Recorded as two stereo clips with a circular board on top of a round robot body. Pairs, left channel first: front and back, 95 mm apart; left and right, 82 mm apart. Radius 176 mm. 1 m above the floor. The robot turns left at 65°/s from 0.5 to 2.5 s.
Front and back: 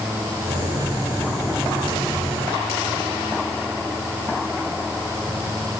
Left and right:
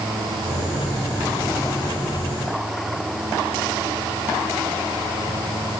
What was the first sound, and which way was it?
Only background noise.